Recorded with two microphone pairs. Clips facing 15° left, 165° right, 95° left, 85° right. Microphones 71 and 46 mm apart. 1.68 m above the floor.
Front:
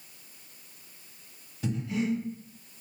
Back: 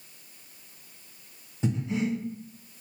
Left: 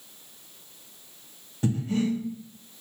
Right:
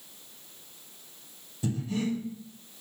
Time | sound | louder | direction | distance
1.6 | breathing | back 2 dB, left 4 dB | 125° left | 0.7 m